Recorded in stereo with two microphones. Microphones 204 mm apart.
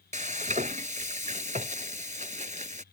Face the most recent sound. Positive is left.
turn(degrees=-35)  # may be behind; listen again after turning